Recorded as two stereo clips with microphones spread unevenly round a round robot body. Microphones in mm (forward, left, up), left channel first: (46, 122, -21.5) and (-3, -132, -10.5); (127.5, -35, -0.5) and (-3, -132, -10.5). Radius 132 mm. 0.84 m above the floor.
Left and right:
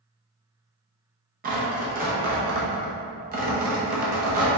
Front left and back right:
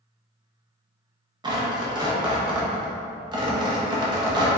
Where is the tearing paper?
125° right, 0.7 m.